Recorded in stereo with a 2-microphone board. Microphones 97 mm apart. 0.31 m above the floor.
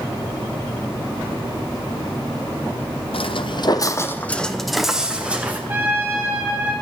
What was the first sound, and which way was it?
Footsteps, 70° left (ahead or behind).